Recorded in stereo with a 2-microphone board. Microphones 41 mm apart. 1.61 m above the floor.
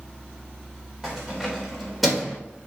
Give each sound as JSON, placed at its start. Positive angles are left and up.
{"t": 1.0, "sound": "keys jangling", "side_deg": -5, "distance_m": 3.5}